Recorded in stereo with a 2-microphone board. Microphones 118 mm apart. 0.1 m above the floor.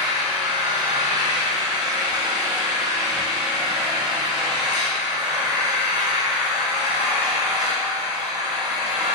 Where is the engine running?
35° right (ahead or behind), 1.6 m.